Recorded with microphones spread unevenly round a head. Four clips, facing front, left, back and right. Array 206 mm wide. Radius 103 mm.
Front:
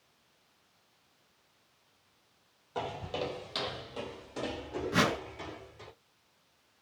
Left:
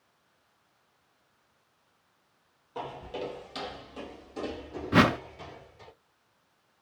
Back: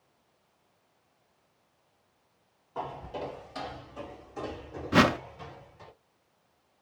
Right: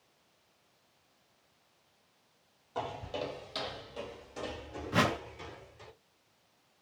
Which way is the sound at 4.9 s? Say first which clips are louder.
Left 7 dB, back 7 dB; 100° left.